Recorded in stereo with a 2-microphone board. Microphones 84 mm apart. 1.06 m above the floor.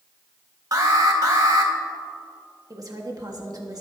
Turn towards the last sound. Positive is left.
turn(degrees=-50)  # may be behind; listen again after turning